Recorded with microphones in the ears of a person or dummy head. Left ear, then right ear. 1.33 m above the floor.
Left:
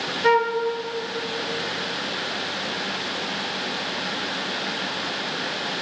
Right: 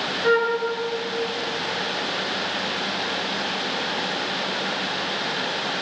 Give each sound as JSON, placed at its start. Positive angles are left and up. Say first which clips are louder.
{"t": 0.2, "sound": "a flute", "louder": "left 1 dB", "side_deg": 85, "distance_m": 4.0}